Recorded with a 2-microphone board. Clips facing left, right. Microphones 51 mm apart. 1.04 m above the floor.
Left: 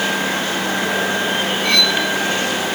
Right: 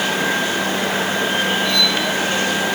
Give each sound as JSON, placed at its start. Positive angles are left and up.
{"t": 1.6, "sound": "cutlery clinking", "side_deg": 80, "distance_m": 3.0}